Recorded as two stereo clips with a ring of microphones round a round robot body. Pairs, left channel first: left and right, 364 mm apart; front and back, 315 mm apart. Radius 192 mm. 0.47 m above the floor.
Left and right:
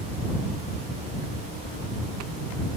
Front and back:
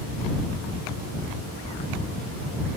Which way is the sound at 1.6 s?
75° left.